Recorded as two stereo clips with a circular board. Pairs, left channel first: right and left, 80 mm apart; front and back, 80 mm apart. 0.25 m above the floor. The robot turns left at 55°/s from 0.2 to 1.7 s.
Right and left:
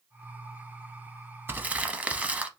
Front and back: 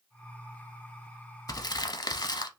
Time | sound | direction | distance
1.5 | crumpling | 30° left | 0.5 m